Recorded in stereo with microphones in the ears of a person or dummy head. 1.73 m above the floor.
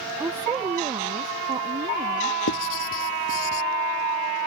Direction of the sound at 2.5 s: 75° left (ahead or behind).